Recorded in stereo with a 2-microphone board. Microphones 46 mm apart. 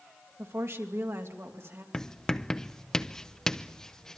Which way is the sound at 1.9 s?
10° left (ahead or behind).